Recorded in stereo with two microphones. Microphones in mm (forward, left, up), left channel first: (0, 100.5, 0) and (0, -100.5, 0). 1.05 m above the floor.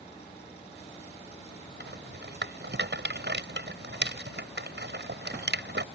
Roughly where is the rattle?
Right.